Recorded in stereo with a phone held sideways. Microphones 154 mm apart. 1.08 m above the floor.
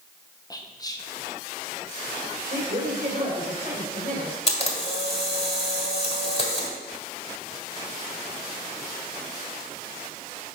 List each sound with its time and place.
0.5 s whispering: 25° left (ahead or behind), 0.9 m
2.5 s a woman speaking: 55° right (ahead or behind), 3.5 m
4.5 s a camera shutter: 40° left (ahead or behind), 1.5 m